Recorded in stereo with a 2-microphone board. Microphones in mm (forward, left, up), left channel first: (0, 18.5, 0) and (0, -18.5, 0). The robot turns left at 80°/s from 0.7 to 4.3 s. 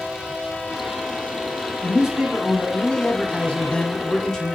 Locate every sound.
1.8 s a man speaking: 135° right, 1.4 m; by 4.5 s 30° left, 1.4 m